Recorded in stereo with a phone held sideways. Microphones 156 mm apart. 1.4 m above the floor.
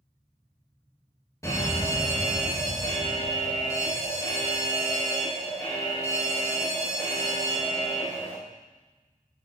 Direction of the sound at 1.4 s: 20° left (ahead or behind).